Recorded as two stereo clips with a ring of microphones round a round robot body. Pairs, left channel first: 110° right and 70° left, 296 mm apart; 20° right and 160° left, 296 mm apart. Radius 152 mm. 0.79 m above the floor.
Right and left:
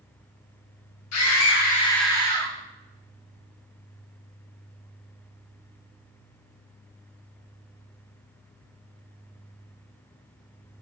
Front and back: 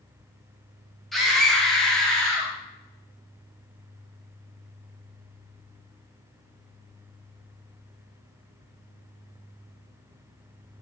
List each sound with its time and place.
1.1 s a scream: 110° right, 1.3 m; by 2.5 s 65° left, 1.0 m